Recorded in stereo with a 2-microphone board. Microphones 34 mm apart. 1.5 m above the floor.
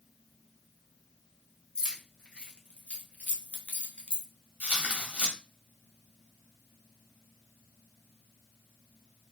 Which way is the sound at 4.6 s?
50° right (ahead or behind).